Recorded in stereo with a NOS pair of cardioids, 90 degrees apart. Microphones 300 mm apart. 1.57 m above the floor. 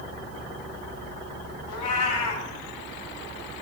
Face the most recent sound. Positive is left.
turn(degrees=55)